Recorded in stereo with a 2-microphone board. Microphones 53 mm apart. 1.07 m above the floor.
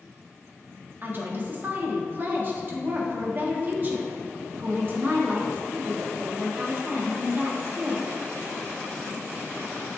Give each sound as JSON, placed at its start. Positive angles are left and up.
{"t": 1.0, "sound": "a woman speaking", "side_deg": -40, "distance_m": 1.7}